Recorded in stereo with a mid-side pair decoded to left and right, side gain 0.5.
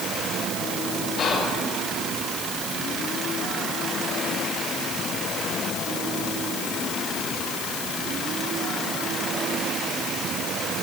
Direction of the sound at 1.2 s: 65° left.